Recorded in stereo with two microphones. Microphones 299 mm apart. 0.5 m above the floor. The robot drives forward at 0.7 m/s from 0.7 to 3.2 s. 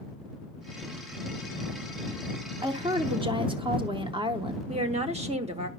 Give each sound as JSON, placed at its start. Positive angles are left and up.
{"t": 2.6, "sound": "a woman speaking", "side_deg": -15, "distance_m": 0.8}
{"t": 4.7, "sound": "a woman speaking", "side_deg": -20, "distance_m": 1.0}